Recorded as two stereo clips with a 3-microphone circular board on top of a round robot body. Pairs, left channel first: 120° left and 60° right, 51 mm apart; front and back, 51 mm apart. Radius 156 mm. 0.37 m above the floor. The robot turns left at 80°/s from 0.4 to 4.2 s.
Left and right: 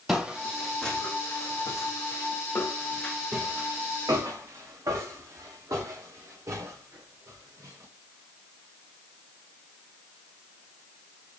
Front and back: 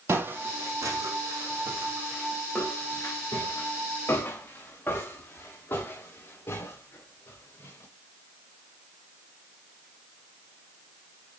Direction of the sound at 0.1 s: 135° right.